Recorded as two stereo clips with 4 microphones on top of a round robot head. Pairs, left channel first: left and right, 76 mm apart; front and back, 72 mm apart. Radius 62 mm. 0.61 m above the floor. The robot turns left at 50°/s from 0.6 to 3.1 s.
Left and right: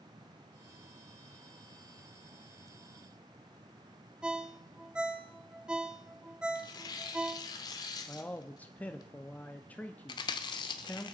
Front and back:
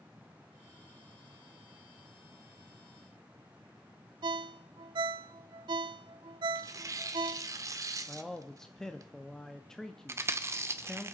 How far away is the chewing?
About 0.8 m.